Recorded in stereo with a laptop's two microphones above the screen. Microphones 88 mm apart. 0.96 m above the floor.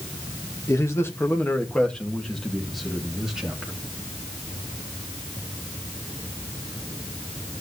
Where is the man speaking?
40° left (ahead or behind), 0.9 m; by 3.7 s 5° right (ahead or behind), 2 m.